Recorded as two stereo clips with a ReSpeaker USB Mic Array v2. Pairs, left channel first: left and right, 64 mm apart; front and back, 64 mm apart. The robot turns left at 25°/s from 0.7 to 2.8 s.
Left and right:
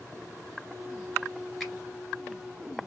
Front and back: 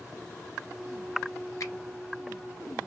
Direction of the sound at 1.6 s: Straight ahead.